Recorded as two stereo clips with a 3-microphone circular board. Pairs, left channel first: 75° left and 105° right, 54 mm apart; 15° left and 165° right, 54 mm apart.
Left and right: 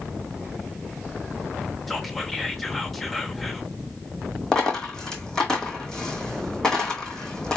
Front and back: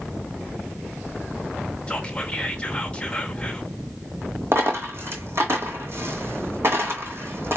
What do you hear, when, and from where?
1.9 s whispering: 10° right, 0.8 m
4.5 s a dropped coin: 155° left, 1.7 m